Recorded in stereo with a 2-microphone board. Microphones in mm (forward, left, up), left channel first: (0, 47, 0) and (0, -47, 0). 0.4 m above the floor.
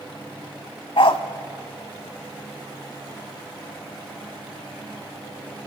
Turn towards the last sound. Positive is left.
turn(degrees=65)  # may be behind; listen again after turning